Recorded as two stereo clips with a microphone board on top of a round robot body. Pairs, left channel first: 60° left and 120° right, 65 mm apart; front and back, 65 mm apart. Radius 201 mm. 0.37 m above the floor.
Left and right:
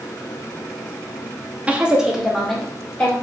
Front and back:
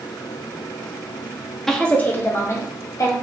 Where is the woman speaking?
80° right, 0.9 m; by 3.1 s 15° right, 1.4 m.